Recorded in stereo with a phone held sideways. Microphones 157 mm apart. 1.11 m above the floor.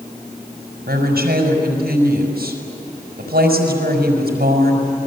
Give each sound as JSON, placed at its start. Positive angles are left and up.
{"t": 0.9, "sound": "a woman speaking", "side_deg": -80, "distance_m": 5.0}